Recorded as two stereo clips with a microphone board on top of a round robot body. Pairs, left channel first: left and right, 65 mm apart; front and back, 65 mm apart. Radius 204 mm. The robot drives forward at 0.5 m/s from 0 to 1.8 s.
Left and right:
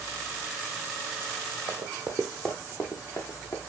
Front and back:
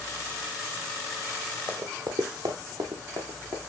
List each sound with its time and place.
1.7 s running footsteps: 130° right, 1.2 m; by 3.6 s 135° left, 2.5 m